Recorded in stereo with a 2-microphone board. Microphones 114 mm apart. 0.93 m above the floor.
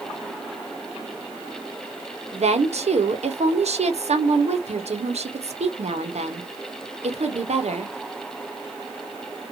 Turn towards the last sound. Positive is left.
turn(degrees=-75)  # may be behind; listen again after turning